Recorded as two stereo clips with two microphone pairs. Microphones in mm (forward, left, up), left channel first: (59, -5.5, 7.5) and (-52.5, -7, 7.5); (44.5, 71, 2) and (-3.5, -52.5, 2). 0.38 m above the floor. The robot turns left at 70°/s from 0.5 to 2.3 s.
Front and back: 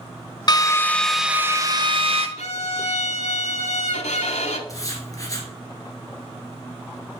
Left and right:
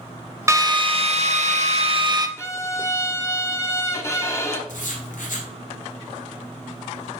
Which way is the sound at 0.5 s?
45° right.